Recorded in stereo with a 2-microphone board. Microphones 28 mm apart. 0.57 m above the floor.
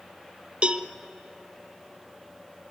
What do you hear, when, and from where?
0.6 s a cowbell: 35° right (ahead or behind), 0.5 m